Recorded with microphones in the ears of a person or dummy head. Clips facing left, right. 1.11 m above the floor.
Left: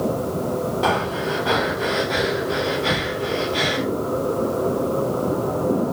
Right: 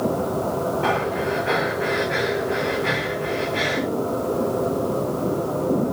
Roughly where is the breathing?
Left.